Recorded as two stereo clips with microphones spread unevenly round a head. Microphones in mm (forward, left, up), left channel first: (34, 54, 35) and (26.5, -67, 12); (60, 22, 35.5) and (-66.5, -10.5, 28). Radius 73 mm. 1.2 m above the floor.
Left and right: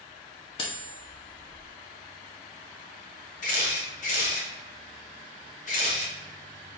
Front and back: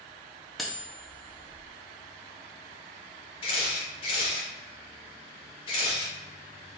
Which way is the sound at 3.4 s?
65° left.